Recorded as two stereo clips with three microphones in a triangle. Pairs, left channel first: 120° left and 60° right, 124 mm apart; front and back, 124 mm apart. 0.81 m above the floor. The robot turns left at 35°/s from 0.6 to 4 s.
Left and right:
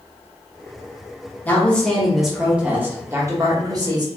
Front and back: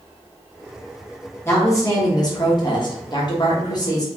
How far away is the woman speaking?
About 1.1 m.